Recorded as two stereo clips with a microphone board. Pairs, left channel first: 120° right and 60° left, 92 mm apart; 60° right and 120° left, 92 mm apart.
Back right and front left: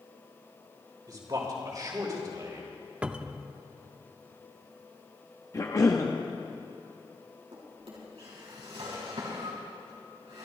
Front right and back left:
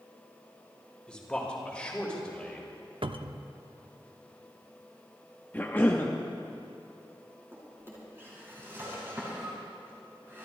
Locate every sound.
1.1 s a man speaking: 20° left, 3 m
3.0 s a cupboard door: 140° left, 0.5 m
5.5 s a cough: 110° right, 0.8 m
7.5 s a drawer: 55° left, 4.5 m